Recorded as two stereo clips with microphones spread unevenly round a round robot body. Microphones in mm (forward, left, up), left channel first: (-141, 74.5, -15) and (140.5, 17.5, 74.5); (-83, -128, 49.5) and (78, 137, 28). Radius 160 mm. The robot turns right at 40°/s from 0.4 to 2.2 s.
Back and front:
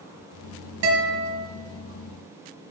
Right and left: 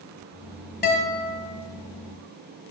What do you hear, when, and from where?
0.8 s a guitar: 60° right, 1.1 m; by 1.4 s 35° right, 1.1 m